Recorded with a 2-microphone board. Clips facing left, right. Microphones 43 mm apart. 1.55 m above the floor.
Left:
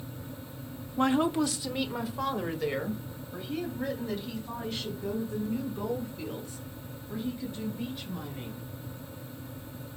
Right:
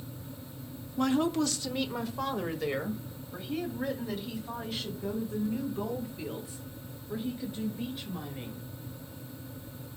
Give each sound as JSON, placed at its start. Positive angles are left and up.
{"t": 1.0, "sound": "a woman speaking", "side_deg": 30, "distance_m": 0.8}